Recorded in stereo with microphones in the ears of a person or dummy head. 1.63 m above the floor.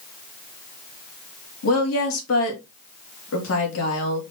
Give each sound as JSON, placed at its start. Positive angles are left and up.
{"t": 1.6, "sound": "a woman speaking", "side_deg": 80, "distance_m": 2.5}